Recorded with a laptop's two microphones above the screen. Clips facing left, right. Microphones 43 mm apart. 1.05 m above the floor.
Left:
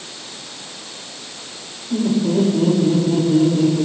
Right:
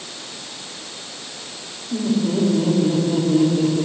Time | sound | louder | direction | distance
1.9 | laughter | left 3 dB | 15° left (ahead or behind) | 2.5 m